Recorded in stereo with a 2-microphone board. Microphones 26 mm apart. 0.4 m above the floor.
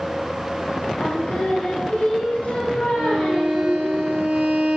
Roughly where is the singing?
Left.